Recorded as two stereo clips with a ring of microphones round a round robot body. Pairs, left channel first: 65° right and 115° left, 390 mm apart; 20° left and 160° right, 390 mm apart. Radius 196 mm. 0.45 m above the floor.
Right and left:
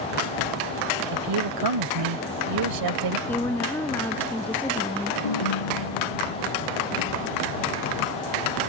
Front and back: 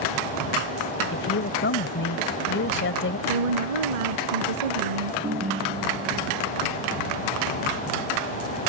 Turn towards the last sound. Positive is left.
turn(degrees=-85)